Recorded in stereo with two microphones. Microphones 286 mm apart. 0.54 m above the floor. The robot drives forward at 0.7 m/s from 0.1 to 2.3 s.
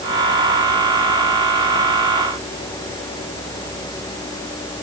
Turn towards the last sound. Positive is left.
No sound to turn to.